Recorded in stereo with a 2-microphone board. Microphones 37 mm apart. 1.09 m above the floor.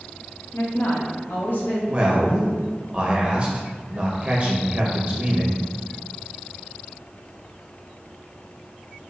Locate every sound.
0.5 s a woman speaking: 60° left (ahead or behind), 0.8 m; by 1.8 s 50° left (ahead or behind), 0.9 m
1.9 s a man speaking: 25° right (ahead or behind), 0.5 m